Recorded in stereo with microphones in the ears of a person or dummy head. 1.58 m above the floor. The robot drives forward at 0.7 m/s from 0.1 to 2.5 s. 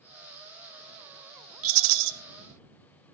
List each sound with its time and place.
1.6 s a rattle: 80° right, 1.1 m; by 2.1 s 70° right (ahead or behind), 1.2 m